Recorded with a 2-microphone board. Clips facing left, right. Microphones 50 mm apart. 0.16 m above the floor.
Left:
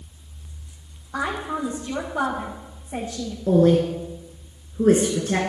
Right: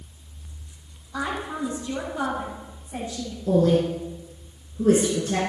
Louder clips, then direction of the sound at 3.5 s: Left 3 dB; 40° left (ahead or behind).